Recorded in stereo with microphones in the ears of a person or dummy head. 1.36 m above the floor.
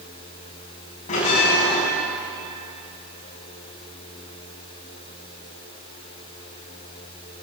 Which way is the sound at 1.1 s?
40° left (ahead or behind).